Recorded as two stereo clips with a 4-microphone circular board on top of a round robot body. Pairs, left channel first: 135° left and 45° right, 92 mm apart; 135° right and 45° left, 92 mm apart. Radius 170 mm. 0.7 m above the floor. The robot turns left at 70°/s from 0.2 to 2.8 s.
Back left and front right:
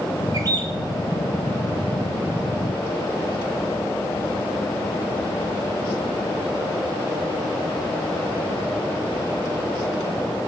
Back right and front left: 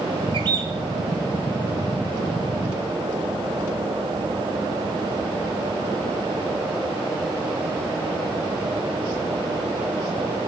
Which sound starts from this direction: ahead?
A bird, at 0.3 s.